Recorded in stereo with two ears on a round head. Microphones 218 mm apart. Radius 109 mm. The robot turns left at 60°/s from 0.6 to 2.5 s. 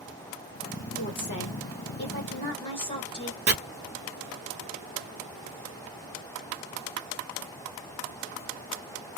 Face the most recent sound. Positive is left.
turn(degrees=-30)  # may be behind; listen again after turning